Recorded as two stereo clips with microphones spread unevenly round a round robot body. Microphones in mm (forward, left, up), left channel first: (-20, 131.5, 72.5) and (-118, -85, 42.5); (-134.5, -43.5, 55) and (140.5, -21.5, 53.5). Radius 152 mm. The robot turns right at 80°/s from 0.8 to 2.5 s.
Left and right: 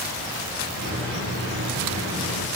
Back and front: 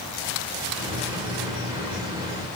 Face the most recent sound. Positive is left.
No sound to turn to.